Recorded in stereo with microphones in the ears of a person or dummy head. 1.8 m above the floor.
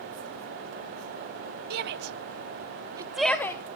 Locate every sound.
1.7 s a shout: 55° right (ahead or behind), 1.6 m; by 3.8 s 15° left (ahead or behind), 1.4 m